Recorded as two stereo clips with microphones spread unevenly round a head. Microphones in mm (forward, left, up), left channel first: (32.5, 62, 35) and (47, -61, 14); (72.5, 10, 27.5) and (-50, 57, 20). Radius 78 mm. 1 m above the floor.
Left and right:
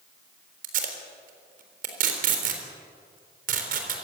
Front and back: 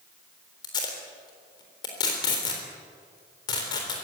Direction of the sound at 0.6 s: 85° right.